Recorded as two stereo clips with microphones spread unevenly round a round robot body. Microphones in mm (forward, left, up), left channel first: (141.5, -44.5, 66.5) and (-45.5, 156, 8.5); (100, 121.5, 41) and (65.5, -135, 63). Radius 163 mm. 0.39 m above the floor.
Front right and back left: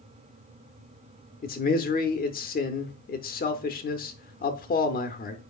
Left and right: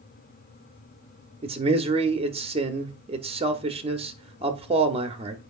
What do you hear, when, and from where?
1.4 s a man speaking: 65° right, 0.8 m